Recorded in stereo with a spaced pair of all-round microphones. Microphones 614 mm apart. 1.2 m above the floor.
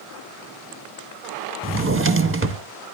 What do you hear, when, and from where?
1.6 s a drawer: 20° right (ahead or behind), 0.6 m